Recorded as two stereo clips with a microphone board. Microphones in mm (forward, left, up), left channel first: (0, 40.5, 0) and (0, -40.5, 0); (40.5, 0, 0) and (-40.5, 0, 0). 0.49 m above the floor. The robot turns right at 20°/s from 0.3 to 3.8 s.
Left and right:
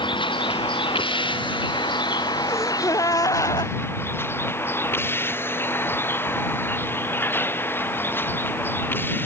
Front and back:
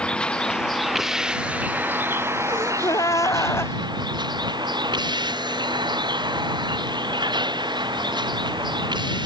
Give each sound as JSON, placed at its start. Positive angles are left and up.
{"t": 0.0, "sound": "a vehicle", "azimuth_deg": 80}
{"t": 2.5, "sound": "a gasp", "azimuth_deg": 35}